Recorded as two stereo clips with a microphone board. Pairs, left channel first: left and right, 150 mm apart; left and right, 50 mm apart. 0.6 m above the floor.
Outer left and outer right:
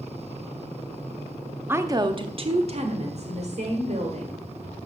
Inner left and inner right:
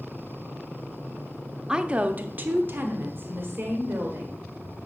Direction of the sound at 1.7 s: 15° right (ahead or behind).